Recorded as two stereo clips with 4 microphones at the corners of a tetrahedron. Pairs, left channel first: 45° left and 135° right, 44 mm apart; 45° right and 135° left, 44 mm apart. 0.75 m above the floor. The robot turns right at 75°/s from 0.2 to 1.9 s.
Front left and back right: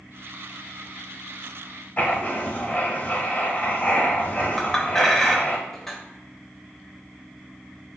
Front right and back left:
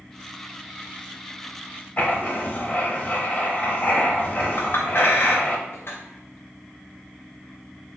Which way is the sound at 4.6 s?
40° right.